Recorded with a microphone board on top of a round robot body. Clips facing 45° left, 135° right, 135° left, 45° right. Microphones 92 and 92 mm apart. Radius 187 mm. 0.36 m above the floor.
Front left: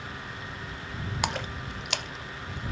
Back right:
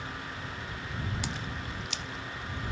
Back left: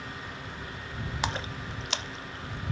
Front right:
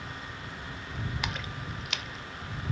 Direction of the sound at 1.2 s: 75° left.